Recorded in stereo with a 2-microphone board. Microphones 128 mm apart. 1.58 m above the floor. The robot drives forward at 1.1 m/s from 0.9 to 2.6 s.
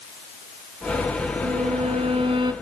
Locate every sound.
1.4 s a violin: 75° right (ahead or behind), 1.1 m; by 2.5 s 40° right (ahead or behind), 1.7 m